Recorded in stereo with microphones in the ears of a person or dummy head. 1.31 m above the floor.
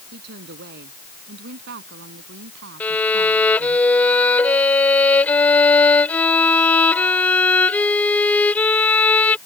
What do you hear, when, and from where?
0.1 s a woman speaking: 60° right (ahead or behind); by 3.8 s 65° right (ahead or behind)
2.8 s a violin: 10° left (ahead or behind)